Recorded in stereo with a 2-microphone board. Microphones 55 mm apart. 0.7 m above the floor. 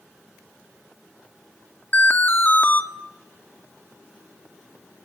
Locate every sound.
1.9 s an alarm: 35° left (ahead or behind), 2 m